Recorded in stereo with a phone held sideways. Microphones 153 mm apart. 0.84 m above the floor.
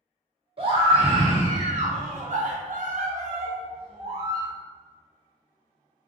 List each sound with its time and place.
0.6 s a scream: 40° right (ahead or behind), 1.6 m; by 4.5 s 25° right (ahead or behind), 1.1 m